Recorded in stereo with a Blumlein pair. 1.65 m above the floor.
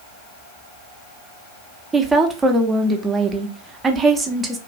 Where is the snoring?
No snoring in this recording.